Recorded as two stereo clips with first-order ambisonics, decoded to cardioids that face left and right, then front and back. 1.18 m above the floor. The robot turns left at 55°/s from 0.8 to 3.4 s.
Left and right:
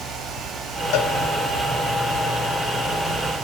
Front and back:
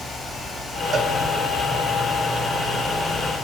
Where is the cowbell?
115° left, 2.5 m; by 1.1 s 100° left, 2.5 m.